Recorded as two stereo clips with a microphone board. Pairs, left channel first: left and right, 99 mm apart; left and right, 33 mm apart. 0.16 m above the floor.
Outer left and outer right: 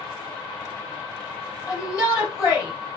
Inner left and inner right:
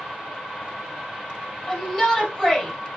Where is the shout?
30° left (ahead or behind), 5 m.